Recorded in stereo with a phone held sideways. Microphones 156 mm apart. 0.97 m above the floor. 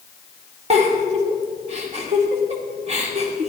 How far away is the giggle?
About 1.8 m.